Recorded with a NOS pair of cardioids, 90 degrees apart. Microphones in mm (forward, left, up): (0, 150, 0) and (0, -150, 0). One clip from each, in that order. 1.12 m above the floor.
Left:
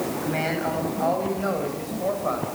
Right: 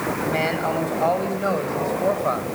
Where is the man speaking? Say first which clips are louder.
Right 4 dB; 25° right, 8.5 m; by 2.5 s 30° right, 6.5 m.